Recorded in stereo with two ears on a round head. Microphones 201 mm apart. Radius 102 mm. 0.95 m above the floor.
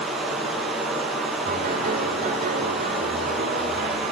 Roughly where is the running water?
Centre.